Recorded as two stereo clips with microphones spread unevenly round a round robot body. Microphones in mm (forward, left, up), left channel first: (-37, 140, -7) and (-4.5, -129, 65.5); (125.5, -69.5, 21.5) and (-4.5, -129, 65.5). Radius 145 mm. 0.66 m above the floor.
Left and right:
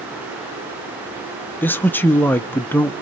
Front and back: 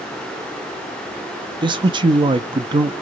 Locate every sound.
1.6 s a man speaking: 145° left, 0.7 m